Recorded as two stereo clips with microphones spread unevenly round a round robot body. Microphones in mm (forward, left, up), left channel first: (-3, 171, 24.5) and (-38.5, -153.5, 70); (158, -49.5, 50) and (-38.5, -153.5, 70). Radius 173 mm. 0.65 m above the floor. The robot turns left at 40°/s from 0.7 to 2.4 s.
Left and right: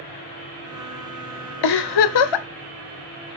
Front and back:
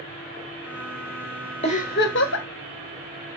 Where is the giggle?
100° left, 1.2 m; by 2.5 s 70° left, 1.2 m.